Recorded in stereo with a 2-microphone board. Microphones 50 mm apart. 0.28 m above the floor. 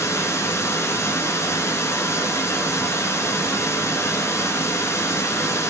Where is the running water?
75° left (ahead or behind), 0.8 m.